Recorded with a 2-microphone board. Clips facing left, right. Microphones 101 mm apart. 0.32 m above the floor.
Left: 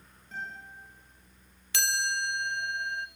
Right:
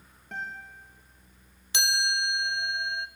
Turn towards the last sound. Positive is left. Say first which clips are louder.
# right 2 dB
turn(degrees=-20)  # may be behind; listen again after turning